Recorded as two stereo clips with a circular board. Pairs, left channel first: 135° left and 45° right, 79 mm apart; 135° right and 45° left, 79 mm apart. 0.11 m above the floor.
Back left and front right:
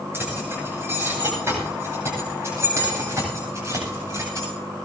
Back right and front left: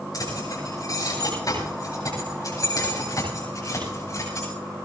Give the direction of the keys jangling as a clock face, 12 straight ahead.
3 o'clock.